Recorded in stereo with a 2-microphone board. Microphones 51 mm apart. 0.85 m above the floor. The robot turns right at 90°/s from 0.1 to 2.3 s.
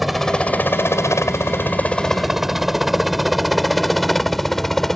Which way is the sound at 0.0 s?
Centre (ahead or behind).